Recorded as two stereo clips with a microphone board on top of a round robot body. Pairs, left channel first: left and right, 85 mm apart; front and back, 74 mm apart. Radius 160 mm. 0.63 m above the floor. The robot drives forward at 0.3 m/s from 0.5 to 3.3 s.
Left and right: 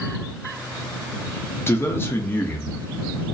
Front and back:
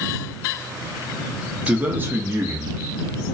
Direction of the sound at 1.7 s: 130° left.